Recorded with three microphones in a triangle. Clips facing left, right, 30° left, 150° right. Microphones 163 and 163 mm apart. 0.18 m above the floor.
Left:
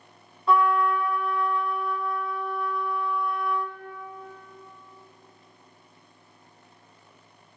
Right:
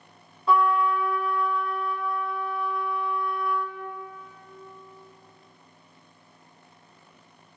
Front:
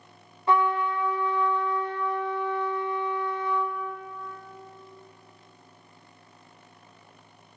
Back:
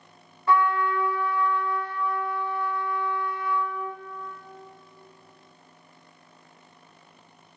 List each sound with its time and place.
0.5 s a trumpet: 5° right, 0.7 m